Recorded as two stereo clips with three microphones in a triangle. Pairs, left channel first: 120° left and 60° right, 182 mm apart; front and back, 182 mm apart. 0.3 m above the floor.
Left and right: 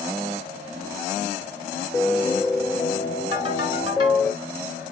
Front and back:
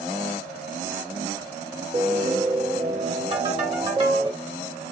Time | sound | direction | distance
1.9 | a piano | 175° left | 1.4 m
3.3 | a ringtone | 120° right | 2.5 m